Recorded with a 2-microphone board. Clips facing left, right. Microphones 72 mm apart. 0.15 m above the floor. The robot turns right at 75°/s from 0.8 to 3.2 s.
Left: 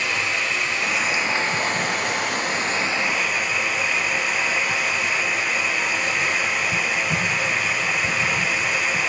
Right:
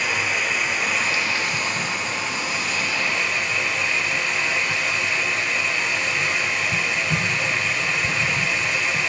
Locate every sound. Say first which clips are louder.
0.0 s running water: right 1 dB; 15° right, 1.6 m; by 9.1 s 165° left, 1.6 m